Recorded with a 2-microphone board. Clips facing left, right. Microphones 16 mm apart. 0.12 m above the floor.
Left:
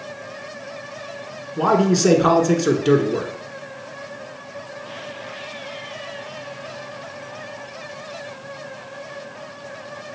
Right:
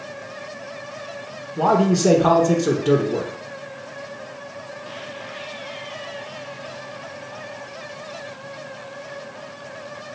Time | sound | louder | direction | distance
1.6 | a man speaking | even | 25° left (ahead or behind) | 1.1 m